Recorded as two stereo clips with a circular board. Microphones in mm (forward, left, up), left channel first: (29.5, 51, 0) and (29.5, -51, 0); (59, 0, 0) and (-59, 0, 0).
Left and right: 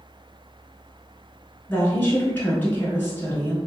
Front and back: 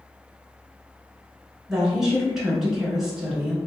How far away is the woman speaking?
About 1.1 m.